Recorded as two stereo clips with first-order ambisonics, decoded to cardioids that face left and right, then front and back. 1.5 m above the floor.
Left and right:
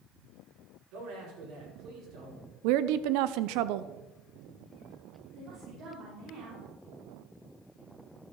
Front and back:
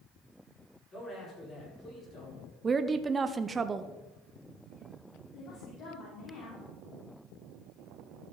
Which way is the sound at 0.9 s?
65° right.